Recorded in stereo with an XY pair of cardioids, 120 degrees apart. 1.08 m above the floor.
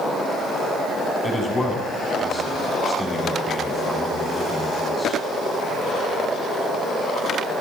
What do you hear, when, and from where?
1.2 s a man speaking: 20° left, 7 m